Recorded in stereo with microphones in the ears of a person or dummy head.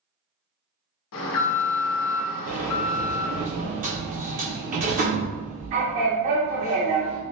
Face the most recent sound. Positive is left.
turn(degrees=-40)  # may be behind; listen again after turning